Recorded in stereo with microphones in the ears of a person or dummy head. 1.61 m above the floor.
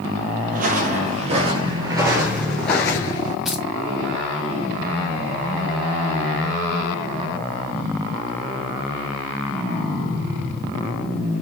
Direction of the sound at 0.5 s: 40° right (ahead or behind).